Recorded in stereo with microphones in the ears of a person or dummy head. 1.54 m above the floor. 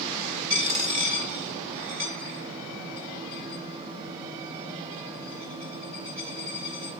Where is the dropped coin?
35° right (ahead or behind), 2 m.